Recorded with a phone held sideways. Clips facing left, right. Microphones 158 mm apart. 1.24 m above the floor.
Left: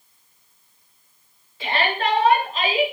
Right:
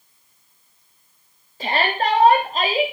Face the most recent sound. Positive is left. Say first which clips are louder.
# right 2 dB
turn(degrees=-40)  # may be behind; listen again after turning